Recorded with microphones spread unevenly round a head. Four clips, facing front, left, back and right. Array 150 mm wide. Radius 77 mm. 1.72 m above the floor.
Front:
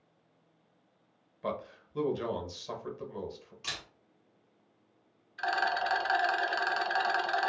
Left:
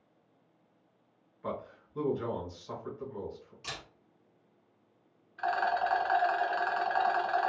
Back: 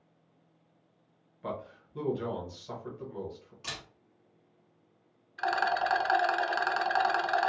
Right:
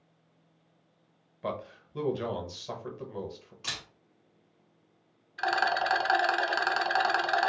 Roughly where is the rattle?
Right.